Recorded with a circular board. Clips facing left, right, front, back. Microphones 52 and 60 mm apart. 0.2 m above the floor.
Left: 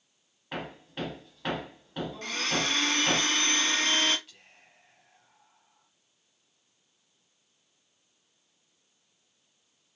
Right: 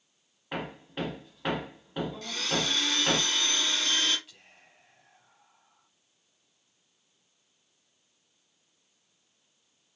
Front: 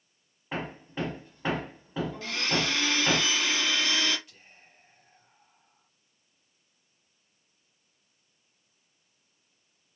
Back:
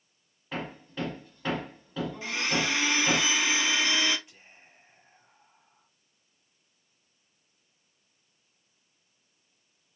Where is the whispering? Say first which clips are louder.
Even, back 1 dB; 175° right, 1.1 m.